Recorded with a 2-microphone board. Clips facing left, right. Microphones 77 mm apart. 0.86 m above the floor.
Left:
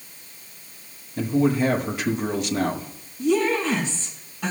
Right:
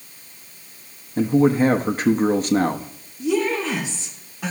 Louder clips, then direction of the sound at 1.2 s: Right 4 dB; 40° right (ahead or behind).